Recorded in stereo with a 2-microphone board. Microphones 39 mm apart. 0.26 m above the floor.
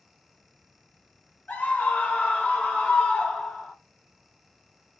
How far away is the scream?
About 1.9 m.